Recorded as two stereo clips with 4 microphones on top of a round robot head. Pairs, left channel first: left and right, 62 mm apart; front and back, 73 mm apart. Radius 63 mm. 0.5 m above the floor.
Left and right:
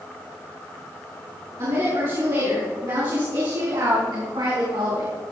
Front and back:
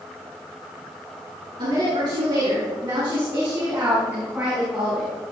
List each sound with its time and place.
1.6 s a woman speaking: 135° right, 7 m; by 5.2 s 95° right, 5 m